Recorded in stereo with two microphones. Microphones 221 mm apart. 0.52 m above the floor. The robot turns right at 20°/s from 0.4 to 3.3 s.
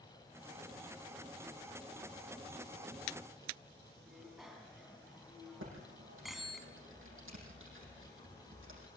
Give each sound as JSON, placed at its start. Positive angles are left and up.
{"t": 4.1, "sound": "a bicycle bell", "side_deg": 0, "distance_m": 3.5}
{"t": 5.6, "sound": "typing on a keyboard", "side_deg": -70, "distance_m": 7.0}